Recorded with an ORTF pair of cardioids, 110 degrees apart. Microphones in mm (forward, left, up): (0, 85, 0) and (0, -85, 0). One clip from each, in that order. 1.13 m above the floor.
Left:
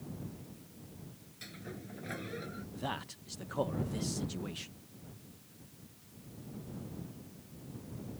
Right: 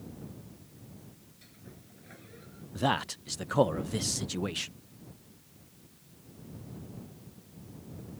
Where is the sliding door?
60° left.